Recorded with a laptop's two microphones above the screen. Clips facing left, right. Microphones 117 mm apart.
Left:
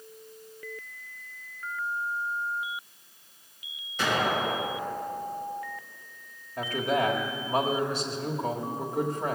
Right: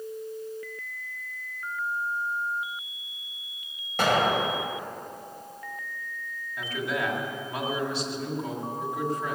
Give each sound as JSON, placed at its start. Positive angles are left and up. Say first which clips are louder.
{"t": 4.0, "sound": "an explosion", "louder": "right 3 dB", "side_deg": -65, "distance_m": 1.5}
{"t": 6.6, "sound": "a man speaking", "louder": "left 4 dB", "side_deg": 45, "distance_m": 1.5}